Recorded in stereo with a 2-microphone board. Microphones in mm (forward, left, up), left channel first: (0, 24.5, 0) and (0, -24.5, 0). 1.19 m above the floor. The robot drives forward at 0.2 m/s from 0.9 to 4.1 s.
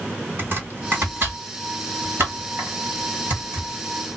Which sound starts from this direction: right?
Chopping, at 0.4 s.